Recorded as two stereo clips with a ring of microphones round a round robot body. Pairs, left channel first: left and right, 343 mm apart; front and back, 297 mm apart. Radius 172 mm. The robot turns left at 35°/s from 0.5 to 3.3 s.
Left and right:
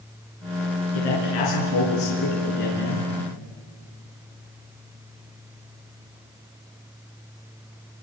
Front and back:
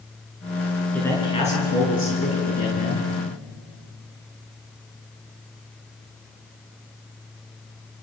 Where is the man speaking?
85° left, 6.5 m; by 3.1 s 10° left, 6.5 m.